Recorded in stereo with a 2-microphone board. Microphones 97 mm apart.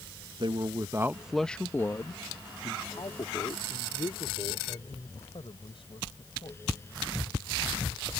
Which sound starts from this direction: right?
A man speaking, at 0.4 s.